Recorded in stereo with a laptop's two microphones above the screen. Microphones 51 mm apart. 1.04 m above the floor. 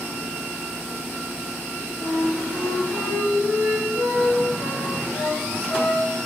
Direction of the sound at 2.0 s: 70° left (ahead or behind).